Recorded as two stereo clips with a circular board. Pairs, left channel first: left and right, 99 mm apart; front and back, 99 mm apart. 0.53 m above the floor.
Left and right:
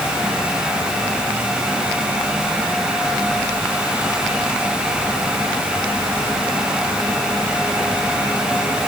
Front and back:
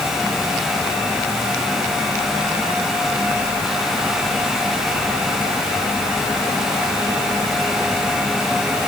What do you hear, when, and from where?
Only background noise.